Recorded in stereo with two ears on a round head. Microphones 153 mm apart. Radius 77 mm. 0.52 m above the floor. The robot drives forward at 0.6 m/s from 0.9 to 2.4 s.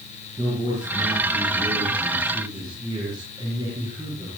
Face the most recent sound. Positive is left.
turn(degrees=-25)  # may be behind; listen again after turning